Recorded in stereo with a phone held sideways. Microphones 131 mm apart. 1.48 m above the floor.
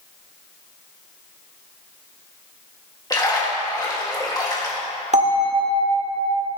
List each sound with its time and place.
3.1 s a splash: 30° left (ahead or behind), 1.8 m
5.1 s a bell: 60° right (ahead or behind), 1.8 m